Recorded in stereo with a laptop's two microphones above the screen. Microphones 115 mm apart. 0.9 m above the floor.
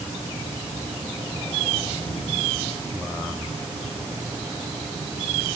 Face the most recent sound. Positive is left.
No sound to turn to.